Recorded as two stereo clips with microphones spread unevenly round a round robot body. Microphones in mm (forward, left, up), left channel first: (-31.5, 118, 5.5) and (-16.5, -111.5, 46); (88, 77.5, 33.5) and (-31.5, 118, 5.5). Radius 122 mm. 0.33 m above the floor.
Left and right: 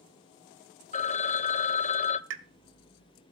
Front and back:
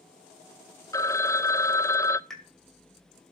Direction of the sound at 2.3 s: 115° right.